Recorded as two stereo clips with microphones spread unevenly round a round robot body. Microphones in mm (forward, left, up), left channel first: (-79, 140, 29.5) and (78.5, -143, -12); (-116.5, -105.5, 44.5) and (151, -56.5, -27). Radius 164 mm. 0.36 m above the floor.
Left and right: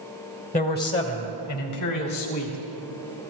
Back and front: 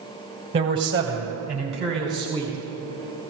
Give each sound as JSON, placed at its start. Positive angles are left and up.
{"t": 0.5, "sound": "a man speaking", "azimuth_deg": 50, "distance_m": 1.8}